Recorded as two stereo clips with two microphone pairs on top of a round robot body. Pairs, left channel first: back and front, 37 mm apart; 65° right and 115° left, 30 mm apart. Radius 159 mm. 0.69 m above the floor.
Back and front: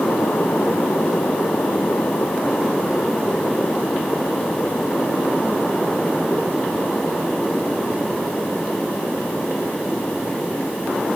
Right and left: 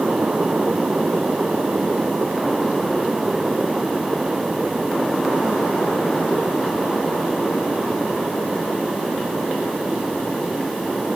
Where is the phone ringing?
I don't hear a phone ringing.